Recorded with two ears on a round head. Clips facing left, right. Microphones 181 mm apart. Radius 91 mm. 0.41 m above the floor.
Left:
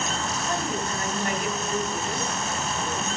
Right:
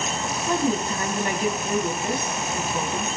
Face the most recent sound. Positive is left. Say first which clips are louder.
# right 8 dB
turn(degrees=-70)  # may be behind; listen again after turning